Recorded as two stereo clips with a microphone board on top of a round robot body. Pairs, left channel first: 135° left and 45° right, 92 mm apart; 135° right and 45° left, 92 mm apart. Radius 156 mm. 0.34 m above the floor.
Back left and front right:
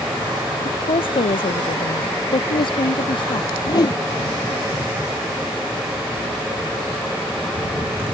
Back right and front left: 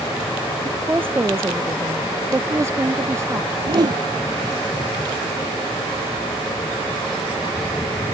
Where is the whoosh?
90° left.